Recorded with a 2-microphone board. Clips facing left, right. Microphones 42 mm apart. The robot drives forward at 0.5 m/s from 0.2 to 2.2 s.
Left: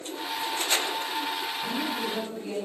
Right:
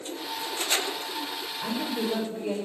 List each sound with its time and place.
1.6 s a woman speaking: 55° right (ahead or behind), 5 m